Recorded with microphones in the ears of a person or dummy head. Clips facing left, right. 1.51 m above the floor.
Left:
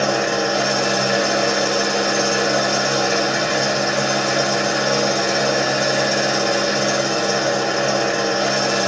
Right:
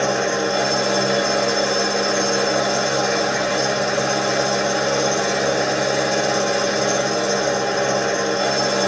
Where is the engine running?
60° left (ahead or behind), 1.2 m.